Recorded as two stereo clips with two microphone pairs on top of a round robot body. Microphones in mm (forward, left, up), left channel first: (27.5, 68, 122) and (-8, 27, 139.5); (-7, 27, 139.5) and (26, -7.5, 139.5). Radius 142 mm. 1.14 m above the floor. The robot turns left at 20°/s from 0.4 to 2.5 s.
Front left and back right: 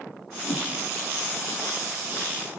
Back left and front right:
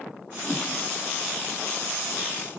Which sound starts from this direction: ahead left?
A whoosh, at 0.5 s.